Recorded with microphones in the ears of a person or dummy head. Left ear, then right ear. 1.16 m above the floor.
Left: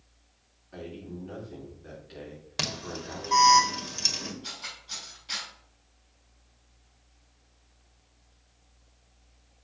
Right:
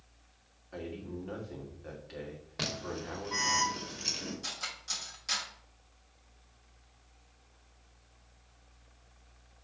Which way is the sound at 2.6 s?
75° left (ahead or behind).